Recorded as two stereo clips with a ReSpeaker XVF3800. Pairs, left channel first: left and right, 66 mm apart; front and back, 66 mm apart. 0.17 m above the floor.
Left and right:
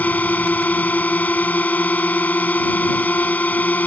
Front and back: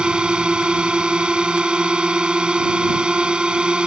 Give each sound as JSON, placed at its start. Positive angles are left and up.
{"t": 0.0, "sound": "a drone", "azimuth_deg": 120}